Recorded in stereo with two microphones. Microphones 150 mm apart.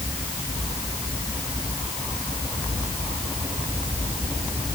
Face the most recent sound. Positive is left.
No sound to turn to.